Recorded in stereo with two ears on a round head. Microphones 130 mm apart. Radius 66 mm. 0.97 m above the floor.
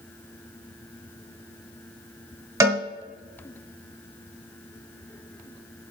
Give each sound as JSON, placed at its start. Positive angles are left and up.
{"t": 2.6, "sound": "a cowbell", "side_deg": -25, "distance_m": 1.1}